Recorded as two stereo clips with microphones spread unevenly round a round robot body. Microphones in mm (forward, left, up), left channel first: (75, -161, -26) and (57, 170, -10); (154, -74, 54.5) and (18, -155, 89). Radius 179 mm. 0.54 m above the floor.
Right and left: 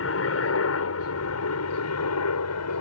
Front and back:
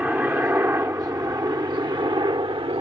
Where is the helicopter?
65° right; by 2.8 s 100° right.